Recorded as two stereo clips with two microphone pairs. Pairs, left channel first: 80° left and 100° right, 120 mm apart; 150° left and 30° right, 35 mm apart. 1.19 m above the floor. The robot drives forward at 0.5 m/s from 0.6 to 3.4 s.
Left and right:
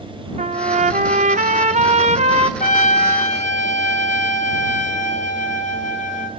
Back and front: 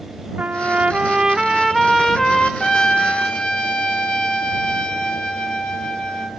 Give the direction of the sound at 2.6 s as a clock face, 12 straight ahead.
9 o'clock.